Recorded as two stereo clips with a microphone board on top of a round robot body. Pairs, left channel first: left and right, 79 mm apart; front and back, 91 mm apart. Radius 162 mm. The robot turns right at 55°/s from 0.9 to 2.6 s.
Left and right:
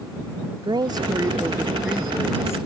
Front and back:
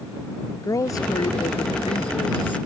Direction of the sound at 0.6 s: 55° right.